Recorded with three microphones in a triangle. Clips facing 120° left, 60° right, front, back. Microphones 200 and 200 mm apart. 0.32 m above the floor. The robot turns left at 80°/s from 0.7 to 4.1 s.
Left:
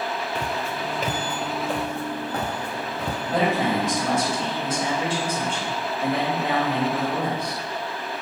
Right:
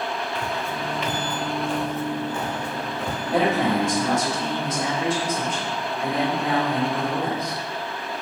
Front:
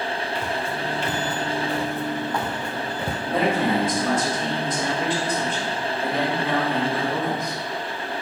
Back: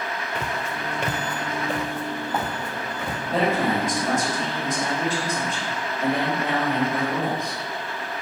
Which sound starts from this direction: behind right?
A man speaking, at 3.2 s.